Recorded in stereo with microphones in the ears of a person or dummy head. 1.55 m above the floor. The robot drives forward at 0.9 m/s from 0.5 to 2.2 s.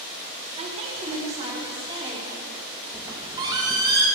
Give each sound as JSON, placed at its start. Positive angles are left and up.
{"t": 0.6, "sound": "a woman speaking", "side_deg": -40, "distance_m": 2.0}
{"t": 2.9, "sound": "a squeak", "side_deg": -15, "distance_m": 0.9}